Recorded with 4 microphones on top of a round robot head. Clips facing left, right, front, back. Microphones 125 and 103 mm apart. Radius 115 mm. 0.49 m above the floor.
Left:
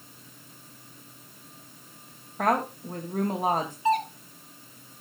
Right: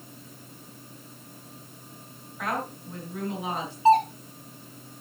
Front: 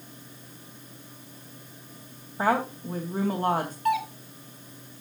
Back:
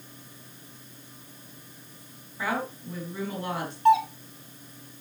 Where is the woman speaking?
45° left, 3.5 m.